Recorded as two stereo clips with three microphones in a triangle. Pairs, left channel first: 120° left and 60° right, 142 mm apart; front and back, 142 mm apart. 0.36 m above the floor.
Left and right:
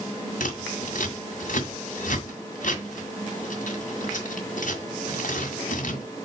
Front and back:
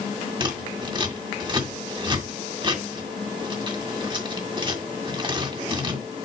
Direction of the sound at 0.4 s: 125° left.